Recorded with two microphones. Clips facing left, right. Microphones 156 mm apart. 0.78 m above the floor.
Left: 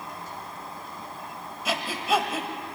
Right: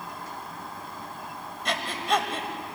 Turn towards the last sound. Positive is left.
turn(degrees=5)  # may be behind; listen again after turning